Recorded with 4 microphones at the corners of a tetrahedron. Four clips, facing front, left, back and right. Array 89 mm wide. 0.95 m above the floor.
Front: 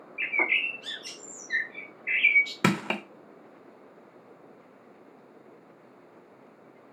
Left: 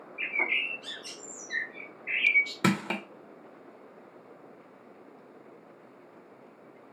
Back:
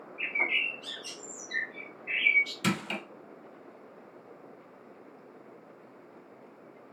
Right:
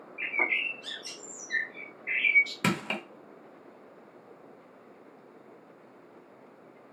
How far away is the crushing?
About 0.7 m.